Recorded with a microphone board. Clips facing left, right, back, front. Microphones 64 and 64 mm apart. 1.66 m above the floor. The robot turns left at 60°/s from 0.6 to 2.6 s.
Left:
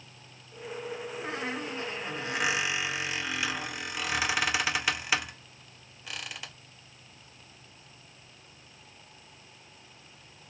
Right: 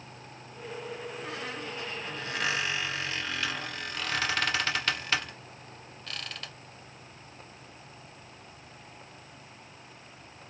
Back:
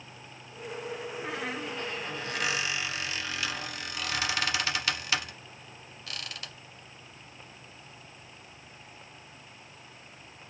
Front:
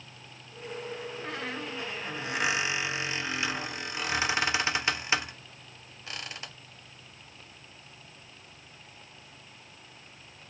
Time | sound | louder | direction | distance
1.2 | a squeak | left 5 dB, back 2 dB | 105° left | 0.6 m